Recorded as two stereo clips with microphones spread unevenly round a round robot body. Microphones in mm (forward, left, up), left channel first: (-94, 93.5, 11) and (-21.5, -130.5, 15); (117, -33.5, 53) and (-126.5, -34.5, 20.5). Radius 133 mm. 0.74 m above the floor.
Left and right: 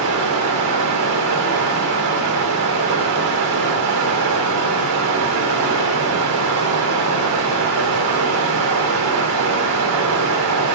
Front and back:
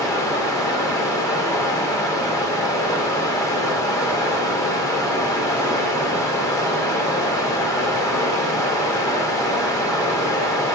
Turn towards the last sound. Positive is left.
turn(degrees=-80)